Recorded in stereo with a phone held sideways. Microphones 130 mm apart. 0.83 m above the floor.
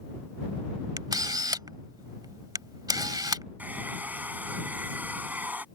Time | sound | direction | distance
1.0 | a camera shutter | 30° right (ahead or behind) | ?
3.6 | a hair dryer | 15° right (ahead or behind) | ?